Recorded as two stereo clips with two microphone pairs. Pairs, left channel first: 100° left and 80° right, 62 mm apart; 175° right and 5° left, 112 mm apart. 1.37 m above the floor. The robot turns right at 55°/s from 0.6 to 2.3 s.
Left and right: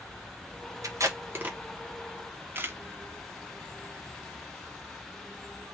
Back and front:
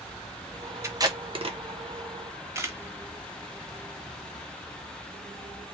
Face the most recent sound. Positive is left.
turn(degrees=-45)